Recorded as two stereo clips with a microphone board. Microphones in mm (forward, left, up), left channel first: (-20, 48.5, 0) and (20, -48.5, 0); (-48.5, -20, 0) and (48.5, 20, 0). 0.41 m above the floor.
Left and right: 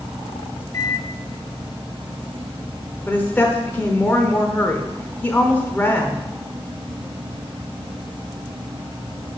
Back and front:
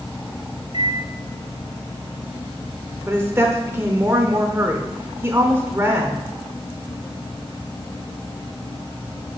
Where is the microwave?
60° left, 1.9 m.